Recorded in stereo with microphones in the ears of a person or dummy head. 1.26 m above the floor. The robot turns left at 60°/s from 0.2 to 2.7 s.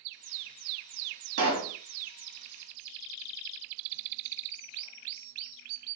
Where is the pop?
85° right, 1.7 m; by 1.8 s 60° right (ahead or behind), 1.7 m.